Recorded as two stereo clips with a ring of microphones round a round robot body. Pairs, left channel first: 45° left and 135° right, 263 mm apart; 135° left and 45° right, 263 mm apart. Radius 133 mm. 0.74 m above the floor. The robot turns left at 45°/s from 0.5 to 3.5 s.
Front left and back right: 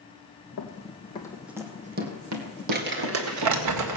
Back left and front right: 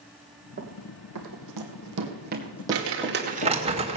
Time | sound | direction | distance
0.6 | running footsteps | 10° left | 2.0 m
2.7 | crumpling | 80° right | 2.0 m